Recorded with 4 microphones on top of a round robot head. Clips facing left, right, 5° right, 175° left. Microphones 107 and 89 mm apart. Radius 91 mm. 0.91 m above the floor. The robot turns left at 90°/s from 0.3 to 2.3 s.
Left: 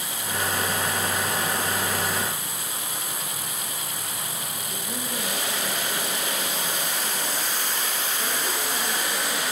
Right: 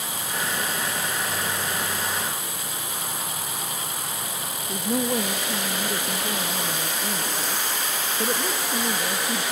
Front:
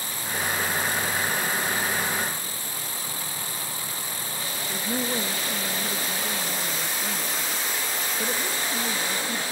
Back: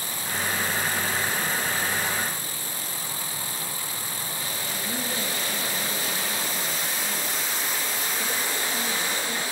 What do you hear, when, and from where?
4.7 s a woman speaking: 70° right, 1.9 m